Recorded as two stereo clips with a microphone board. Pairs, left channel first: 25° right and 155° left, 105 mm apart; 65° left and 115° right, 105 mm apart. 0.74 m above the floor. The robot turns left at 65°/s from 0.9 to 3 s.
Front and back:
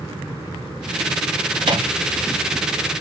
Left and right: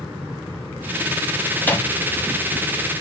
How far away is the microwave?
About 0.8 m.